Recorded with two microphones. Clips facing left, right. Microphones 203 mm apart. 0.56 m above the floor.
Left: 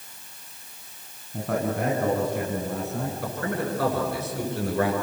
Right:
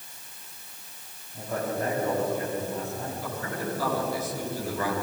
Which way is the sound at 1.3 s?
70° left (ahead or behind).